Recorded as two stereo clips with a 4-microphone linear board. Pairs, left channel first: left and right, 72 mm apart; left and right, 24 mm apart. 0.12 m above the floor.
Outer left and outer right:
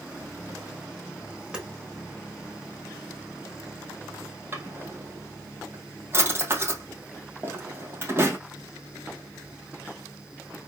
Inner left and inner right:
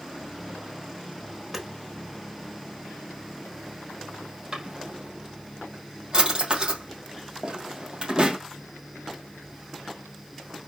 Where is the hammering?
10° right (ahead or behind), 4 m.